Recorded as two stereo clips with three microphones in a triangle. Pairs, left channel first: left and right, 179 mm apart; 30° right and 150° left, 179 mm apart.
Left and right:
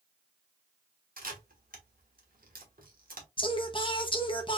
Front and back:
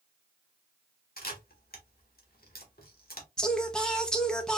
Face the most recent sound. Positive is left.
turn(degrees=50)